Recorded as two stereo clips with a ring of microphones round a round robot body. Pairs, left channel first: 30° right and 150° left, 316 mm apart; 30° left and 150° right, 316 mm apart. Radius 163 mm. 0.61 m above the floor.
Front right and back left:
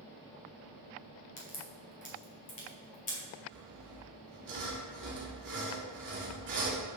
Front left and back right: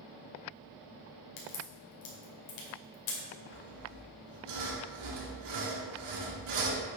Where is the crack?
35° left, 2.5 m.